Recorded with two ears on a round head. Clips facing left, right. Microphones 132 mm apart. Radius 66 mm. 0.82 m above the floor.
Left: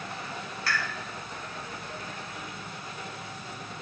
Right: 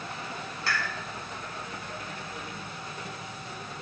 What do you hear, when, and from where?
0.7 s a pop: 25° right (ahead or behind), 1.2 m